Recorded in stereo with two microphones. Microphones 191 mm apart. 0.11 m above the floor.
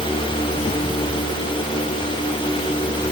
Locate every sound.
Only background noise.